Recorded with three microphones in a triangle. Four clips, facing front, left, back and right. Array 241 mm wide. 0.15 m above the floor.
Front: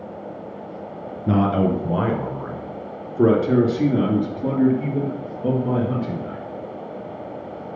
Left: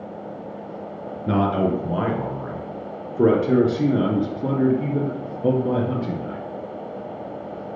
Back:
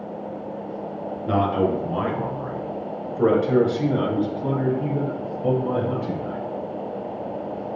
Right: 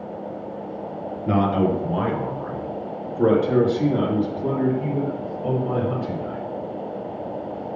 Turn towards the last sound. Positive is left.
turn(degrees=90)